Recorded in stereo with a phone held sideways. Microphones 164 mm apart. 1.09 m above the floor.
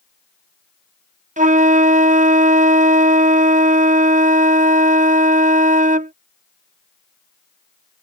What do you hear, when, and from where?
1.4 s a flute: 50° right (ahead or behind)